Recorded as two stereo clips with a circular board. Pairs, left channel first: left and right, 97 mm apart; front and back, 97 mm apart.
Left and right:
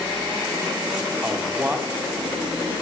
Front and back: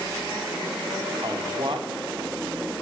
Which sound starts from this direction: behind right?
A man speaking, at 1.2 s.